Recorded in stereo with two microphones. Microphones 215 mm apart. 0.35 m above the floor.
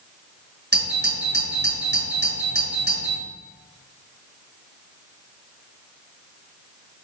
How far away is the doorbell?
About 5 m.